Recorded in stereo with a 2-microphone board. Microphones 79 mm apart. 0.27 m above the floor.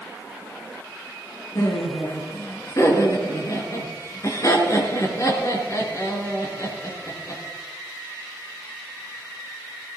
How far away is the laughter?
About 4 m.